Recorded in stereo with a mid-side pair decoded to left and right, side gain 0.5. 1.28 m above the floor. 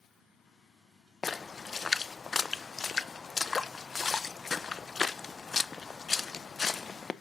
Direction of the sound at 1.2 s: 35° left.